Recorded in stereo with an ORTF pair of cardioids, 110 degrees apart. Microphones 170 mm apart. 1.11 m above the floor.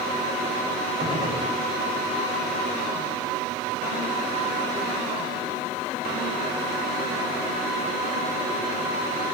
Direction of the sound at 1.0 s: 30° right.